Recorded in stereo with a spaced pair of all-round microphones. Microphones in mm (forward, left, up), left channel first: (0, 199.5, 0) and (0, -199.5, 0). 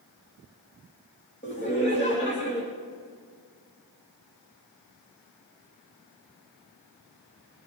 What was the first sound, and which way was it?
Laughter, 25° left (ahead or behind).